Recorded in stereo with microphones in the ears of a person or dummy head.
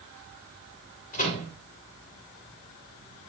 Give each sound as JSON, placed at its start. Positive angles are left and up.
{"t": 1.1, "sound": "a microwave", "side_deg": 40, "distance_m": 2.5}